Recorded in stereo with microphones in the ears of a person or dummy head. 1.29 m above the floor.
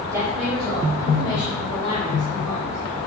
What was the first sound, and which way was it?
A woman speaking, 20° right (ahead or behind).